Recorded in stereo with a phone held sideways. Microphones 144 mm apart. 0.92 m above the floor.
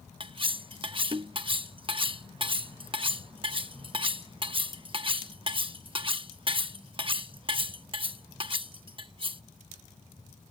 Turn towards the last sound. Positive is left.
turn(degrees=-35)  # may be behind; listen again after turning